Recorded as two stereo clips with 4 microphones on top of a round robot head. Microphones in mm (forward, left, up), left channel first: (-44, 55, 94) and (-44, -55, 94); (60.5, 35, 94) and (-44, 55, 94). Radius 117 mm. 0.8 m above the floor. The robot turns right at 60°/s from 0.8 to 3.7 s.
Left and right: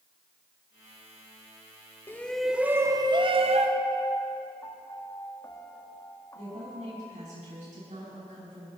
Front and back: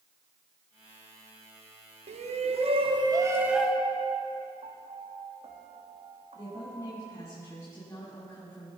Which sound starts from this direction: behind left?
A piano, at 3.8 s.